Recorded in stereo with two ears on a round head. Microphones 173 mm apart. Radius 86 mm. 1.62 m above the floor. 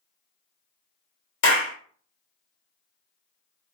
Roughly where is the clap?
Left.